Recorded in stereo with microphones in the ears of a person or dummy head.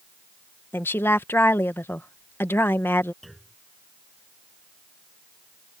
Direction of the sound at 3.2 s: Centre (ahead or behind).